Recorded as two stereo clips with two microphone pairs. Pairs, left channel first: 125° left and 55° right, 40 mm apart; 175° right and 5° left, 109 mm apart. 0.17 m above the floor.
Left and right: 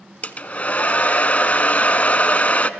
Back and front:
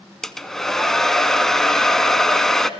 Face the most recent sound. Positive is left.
turn(degrees=100)